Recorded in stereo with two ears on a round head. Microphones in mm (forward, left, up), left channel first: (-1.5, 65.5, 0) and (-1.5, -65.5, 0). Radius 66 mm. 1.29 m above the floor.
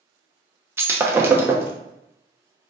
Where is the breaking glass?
15° right (ahead or behind), 0.7 m.